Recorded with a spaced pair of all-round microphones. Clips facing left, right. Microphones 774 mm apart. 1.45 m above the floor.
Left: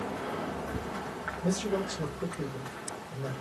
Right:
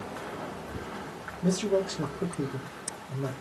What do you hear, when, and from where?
1.4 s a man speaking: 60° right (ahead or behind), 0.6 m